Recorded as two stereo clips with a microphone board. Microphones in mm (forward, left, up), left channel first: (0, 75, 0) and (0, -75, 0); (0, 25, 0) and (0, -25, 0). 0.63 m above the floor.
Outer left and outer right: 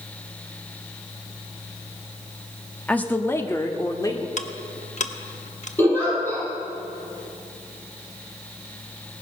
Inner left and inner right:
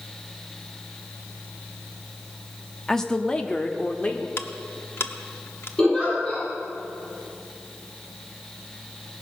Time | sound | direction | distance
2.9 | a woman speaking | 10° left (ahead or behind) | 1.0 m
4.4 | ticking | 55° left (ahead or behind) | 0.9 m
5.8 | a giggle | 15° left (ahead or behind) | 7 m